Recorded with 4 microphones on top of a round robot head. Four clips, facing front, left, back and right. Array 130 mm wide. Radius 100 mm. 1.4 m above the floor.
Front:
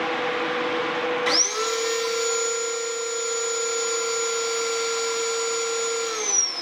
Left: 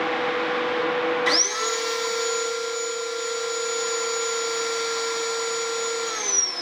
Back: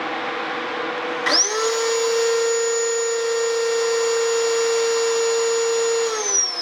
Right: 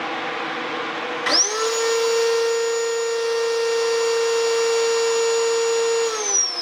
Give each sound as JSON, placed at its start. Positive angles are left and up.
{"t": 1.3, "sound": "sawing", "azimuth_deg": -140, "distance_m": 0.8}